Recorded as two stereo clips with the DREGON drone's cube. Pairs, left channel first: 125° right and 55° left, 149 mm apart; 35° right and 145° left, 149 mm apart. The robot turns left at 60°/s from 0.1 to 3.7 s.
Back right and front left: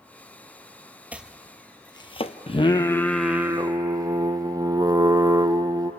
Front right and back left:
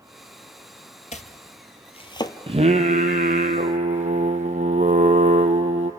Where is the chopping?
20° right, 0.7 m; by 2.4 s 95° right, 0.7 m.